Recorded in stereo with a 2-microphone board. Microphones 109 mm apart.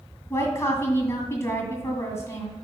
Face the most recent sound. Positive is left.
turn(degrees=25)  # may be behind; listen again after turning